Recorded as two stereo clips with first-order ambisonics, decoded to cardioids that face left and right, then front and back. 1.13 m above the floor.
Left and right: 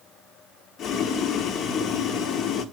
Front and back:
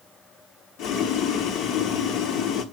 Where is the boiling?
40° left, 1.2 m.